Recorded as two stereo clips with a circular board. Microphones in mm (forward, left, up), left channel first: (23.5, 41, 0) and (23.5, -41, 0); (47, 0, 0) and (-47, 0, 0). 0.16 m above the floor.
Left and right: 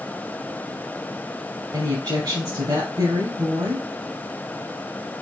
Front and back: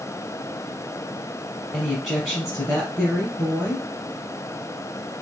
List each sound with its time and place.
1.7 s a woman speaking: 90° right, 2.5 m